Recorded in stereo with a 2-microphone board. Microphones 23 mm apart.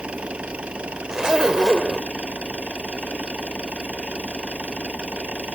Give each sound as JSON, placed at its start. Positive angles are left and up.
{"t": 0.0, "sound": "an engine running", "side_deg": -70}
{"t": 1.1, "sound": "a zipper", "side_deg": -30}